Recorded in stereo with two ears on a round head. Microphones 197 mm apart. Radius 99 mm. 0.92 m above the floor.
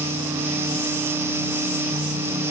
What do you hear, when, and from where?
Only background noise.